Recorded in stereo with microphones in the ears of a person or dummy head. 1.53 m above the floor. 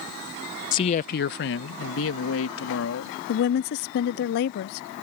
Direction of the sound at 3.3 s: 55° left (ahead or behind).